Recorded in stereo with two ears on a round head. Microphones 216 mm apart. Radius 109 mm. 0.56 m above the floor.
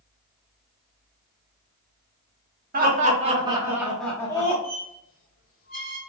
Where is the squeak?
45° left (ahead or behind), 1.9 m.